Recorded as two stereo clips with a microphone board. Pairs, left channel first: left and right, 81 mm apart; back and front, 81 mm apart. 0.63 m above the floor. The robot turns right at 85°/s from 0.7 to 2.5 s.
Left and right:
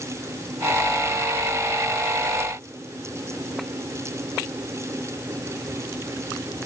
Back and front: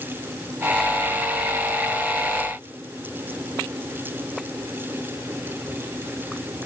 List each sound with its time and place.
Only background noise.